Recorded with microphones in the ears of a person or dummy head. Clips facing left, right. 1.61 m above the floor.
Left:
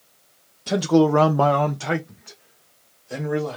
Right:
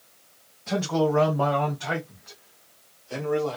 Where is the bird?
No bird in this recording.